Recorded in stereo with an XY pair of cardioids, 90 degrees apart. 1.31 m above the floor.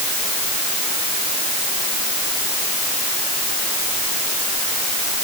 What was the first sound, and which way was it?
Only background noise.